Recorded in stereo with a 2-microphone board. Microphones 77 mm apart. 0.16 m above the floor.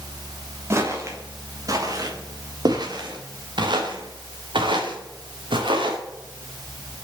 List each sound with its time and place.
0.7 s footsteps: 35° right (ahead or behind), 3 m; by 6.0 s 85° right, 3.5 m